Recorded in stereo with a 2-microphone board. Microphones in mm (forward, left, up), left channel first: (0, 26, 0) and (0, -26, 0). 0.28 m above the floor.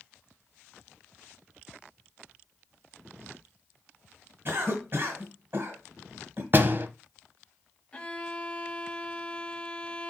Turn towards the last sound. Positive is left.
turn(degrees=20)  # may be behind; listen again after turning